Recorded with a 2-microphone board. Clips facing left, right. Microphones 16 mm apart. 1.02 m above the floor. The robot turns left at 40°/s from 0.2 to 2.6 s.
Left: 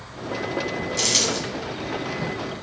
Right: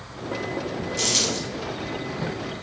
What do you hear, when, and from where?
1.0 s a dropped coin: 25° left (ahead or behind), 1.2 m; by 1.4 s 10° left (ahead or behind), 1.2 m